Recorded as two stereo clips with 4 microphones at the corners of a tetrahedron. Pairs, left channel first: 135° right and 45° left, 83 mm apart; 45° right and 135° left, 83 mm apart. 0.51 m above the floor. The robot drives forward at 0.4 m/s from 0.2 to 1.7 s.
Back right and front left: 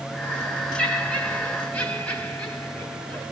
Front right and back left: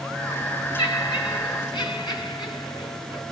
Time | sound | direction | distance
0.8 | laughter | 55° right | 3.5 m